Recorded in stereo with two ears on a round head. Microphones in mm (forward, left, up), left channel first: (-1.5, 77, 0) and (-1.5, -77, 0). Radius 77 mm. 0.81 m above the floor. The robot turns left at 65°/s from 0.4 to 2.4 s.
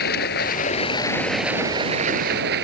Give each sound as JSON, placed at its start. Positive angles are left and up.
{"t": 0.0, "sound": "running water", "azimuth_deg": 65}